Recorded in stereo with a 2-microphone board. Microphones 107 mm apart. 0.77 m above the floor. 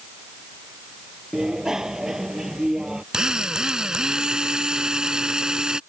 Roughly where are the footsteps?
I don't hear footsteps.